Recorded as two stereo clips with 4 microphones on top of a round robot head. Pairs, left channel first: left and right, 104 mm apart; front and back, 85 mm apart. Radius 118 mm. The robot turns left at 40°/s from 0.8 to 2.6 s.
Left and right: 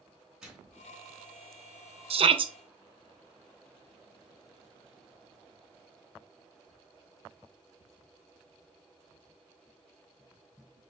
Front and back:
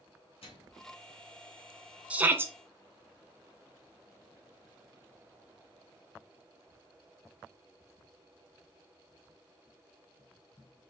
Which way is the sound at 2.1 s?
105° right.